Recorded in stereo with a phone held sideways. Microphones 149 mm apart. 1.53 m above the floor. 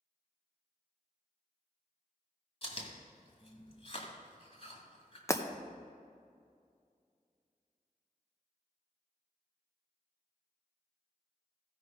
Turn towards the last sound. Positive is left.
turn(degrees=20)  # may be behind; listen again after turning